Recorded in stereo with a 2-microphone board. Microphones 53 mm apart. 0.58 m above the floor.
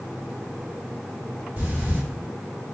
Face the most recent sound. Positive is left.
turn(degrees=-35)  # may be behind; listen again after turning